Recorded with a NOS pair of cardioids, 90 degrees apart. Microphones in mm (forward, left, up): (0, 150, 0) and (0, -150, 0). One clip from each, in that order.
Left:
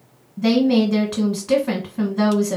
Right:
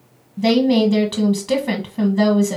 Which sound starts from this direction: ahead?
A woman speaking, at 0.4 s.